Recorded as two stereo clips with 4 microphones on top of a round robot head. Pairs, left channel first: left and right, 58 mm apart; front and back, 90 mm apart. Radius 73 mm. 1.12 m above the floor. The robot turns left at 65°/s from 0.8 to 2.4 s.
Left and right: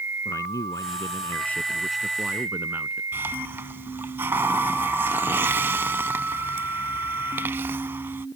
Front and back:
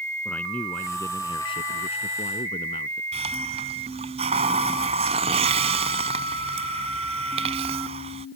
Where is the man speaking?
75° left; by 3.0 s 30° right.